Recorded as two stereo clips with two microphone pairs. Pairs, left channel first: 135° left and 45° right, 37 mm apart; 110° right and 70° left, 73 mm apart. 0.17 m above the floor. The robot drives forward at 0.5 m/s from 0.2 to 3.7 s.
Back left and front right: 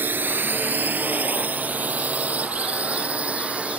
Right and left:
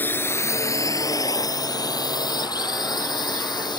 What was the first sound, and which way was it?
A drone, 50° right.